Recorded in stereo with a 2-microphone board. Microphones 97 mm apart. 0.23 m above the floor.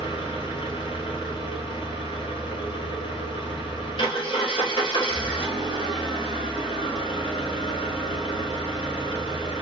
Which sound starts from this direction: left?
An engine running, at 0.0 s.